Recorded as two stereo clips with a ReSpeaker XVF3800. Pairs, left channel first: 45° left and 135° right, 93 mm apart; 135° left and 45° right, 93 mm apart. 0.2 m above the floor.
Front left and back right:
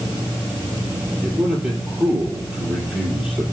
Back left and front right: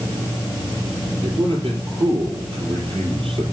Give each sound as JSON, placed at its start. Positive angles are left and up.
{"t": 1.2, "sound": "a man speaking", "azimuth_deg": -55, "distance_m": 5.5}